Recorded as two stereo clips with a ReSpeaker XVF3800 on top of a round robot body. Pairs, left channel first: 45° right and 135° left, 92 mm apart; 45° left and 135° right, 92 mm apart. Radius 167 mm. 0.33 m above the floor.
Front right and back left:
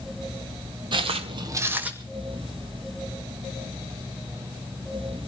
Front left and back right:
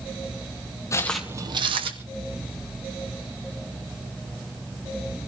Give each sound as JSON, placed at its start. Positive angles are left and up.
{"t": 0.9, "sound": "footsteps", "azimuth_deg": 100, "distance_m": 0.7}